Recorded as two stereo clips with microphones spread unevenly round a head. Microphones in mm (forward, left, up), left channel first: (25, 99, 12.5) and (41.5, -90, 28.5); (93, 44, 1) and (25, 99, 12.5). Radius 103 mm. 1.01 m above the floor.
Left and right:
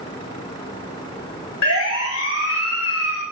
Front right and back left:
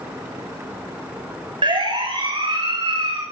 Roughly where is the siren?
Behind left.